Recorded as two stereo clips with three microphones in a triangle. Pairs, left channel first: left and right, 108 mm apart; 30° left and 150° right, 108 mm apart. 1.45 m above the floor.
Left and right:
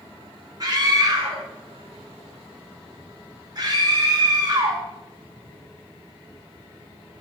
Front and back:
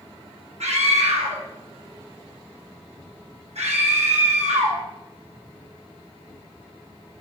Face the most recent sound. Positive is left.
turn(degrees=-145)